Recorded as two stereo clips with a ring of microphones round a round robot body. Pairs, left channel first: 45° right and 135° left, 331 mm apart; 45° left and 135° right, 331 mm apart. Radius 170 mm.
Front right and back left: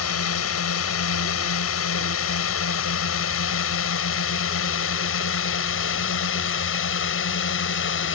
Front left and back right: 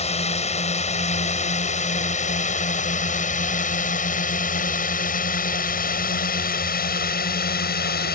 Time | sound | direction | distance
0.0 | a drone | 20° right | ?